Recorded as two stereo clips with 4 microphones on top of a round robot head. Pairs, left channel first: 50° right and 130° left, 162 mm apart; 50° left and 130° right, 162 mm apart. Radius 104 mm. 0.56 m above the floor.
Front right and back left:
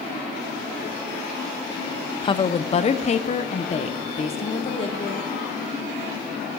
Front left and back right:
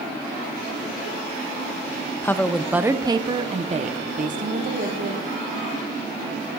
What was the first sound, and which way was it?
A woman speaking, 15° right.